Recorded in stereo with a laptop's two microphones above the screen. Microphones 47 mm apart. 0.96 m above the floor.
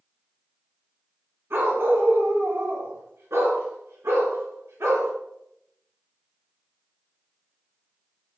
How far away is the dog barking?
About 4 m.